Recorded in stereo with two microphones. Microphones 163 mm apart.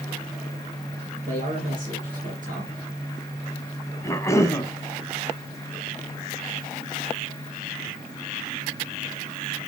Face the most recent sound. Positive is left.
turn(degrees=20)  # may be behind; listen again after turning